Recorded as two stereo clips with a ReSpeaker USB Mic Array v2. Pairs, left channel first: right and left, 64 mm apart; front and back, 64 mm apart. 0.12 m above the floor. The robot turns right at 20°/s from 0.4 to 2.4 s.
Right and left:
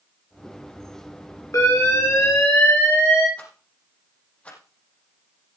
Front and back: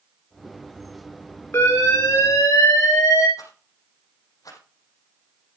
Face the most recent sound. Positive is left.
turn(degrees=-20)